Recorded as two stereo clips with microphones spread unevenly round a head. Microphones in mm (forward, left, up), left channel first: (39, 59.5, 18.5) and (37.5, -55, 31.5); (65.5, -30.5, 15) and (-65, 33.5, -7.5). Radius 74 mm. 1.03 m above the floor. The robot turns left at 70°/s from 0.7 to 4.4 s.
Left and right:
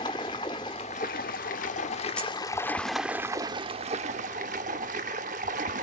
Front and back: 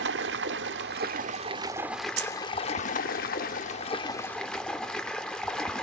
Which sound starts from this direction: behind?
Keys jangling, at 2.2 s.